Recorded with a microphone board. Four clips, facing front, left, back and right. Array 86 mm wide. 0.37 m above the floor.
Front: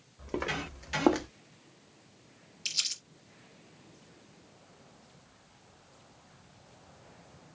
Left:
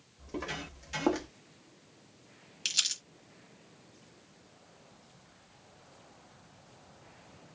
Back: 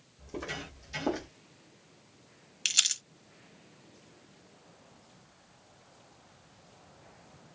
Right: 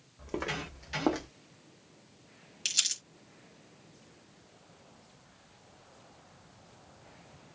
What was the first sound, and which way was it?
Footsteps, 40° right.